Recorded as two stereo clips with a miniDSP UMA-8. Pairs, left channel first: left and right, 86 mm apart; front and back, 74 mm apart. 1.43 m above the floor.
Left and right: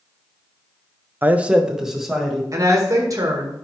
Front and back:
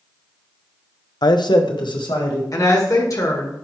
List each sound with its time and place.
1.2 s a man speaking: 25° right, 0.5 m; by 2.4 s straight ahead, 2 m
2.5 s a woman speaking: 40° right, 1.7 m